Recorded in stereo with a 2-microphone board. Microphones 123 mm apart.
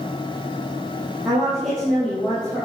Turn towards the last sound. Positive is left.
turn(degrees=15)  # may be behind; listen again after turning